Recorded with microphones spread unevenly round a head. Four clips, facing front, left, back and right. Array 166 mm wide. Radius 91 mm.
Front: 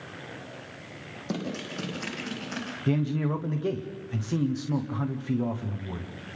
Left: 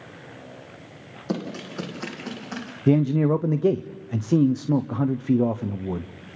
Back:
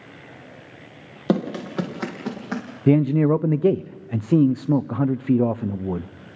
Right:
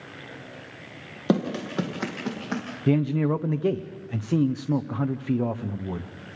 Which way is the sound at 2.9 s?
155° left.